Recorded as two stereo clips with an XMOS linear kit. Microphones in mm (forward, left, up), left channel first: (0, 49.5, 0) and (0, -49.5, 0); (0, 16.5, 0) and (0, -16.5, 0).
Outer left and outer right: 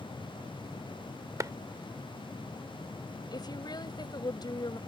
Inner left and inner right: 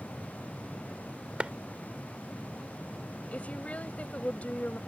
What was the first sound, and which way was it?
A clap, 35° right (ahead or behind).